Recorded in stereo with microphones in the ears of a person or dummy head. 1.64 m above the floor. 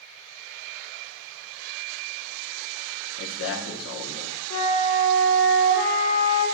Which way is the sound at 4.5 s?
70° left (ahead or behind).